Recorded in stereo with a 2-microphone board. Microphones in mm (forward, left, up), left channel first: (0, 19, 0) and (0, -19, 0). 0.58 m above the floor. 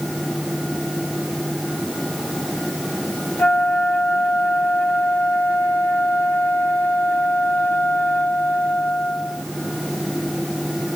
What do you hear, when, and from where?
3.4 s a flute: 75° left (ahead or behind), 1.2 m